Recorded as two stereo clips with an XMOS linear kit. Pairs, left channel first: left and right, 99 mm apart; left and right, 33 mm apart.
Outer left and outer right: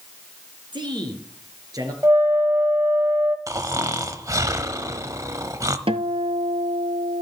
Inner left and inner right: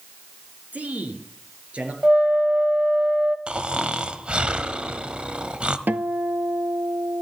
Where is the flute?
25° right (ahead or behind), 1.0 m.